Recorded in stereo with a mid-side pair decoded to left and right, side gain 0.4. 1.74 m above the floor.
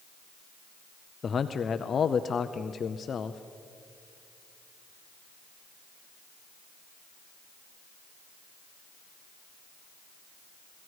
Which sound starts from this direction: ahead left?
A man speaking, at 1.2 s.